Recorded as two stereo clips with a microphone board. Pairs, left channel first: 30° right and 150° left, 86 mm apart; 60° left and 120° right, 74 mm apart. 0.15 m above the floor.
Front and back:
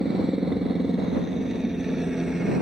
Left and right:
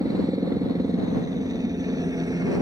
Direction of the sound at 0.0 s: 125° right.